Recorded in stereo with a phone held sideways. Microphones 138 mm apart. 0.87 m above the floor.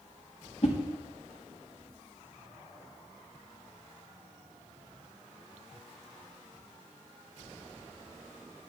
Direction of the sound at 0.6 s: 50° left (ahead or behind).